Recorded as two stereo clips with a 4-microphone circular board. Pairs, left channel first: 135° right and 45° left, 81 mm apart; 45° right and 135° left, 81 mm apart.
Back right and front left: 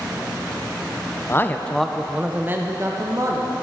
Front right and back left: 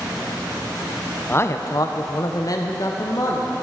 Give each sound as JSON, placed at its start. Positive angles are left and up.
{"t": 1.3, "sound": "a man speaking", "azimuth_deg": -90, "distance_m": 0.6}